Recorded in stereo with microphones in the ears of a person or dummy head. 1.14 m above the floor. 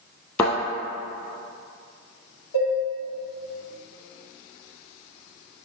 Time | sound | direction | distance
0.4 | a thud | 20° left (ahead or behind) | 2 m
2.5 | dishes clattering | 85° left | 2 m